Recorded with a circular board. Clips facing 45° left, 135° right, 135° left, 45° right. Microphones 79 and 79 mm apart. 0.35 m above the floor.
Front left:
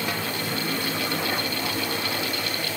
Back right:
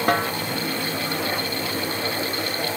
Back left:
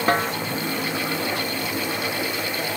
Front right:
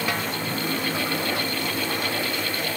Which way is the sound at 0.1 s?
175° right.